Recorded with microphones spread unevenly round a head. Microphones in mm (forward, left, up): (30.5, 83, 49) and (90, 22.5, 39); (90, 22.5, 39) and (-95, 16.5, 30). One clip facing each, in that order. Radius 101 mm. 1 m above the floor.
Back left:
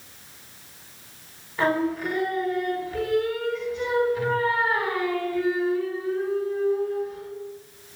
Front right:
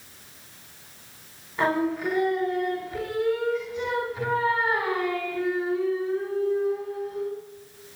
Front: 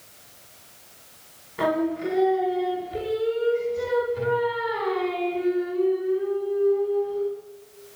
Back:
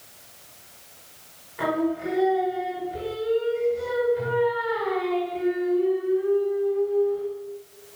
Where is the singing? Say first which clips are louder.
Back left 1 dB, front 1 dB; 40° left, 1.6 m.